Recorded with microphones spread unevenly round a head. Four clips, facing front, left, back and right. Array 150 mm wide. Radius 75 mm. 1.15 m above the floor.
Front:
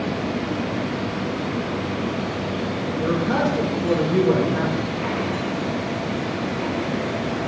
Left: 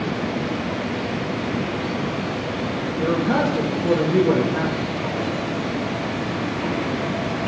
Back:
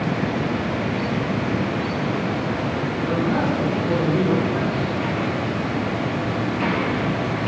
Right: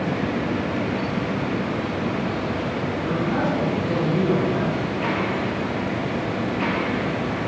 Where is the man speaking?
75° left, 1.8 m.